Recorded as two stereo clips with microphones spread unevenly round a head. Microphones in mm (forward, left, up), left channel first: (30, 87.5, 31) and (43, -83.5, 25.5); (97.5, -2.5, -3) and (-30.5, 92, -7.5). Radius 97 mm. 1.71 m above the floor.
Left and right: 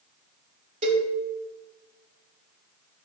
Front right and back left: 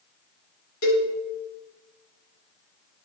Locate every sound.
0.8 s a cowbell: 35° right, 4 m